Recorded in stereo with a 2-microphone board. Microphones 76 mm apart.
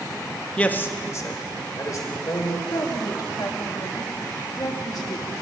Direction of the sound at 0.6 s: 15° left (ahead or behind).